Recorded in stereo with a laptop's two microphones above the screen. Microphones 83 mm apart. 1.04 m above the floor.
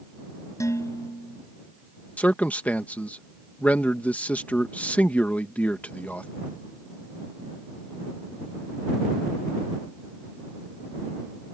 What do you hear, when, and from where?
0.6 s dishes clattering: 40° left (ahead or behind)
2.2 s a man speaking: 15° left (ahead or behind)